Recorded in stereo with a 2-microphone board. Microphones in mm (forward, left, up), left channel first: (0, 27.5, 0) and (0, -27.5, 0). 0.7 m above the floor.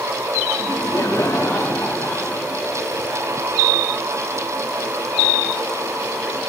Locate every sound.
0.6 s laughter: 45° left (ahead or behind), 0.9 m; by 2.6 s 55° left (ahead or behind), 2.5 m